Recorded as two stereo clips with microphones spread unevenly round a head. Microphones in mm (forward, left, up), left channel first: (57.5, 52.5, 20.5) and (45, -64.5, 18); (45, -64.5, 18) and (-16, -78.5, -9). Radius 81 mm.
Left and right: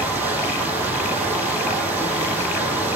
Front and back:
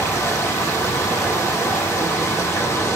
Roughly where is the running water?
Ahead.